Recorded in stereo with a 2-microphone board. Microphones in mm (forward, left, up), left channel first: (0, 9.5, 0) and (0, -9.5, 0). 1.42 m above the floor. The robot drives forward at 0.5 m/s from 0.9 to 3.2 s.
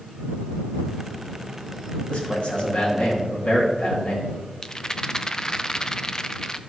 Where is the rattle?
30° left (ahead or behind), 0.5 m.